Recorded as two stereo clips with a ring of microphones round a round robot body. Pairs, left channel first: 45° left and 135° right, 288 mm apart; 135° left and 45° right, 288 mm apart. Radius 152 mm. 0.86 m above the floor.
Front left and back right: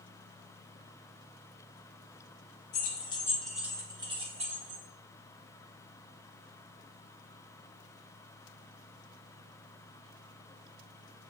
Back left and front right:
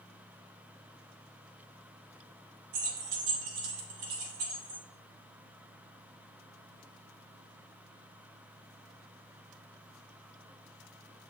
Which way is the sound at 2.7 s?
15° right.